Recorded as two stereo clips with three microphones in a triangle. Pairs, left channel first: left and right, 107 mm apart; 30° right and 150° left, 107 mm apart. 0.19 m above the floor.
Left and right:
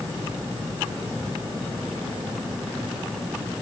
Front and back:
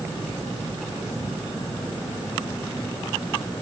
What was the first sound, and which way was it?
Only background noise.